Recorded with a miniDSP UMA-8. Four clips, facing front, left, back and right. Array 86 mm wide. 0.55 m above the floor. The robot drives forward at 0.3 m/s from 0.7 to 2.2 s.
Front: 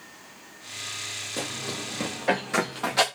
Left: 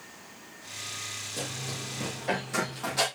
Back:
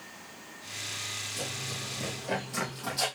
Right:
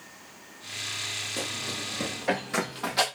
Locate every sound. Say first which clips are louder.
1.4 s running footsteps: right 1 dB, front 7 dB; 30° right, 8 m; by 3.0 s 20° right, 6.5 m